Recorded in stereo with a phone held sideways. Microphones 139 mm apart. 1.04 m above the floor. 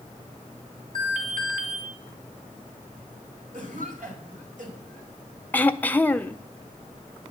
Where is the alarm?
65° right (ahead or behind), 3 m.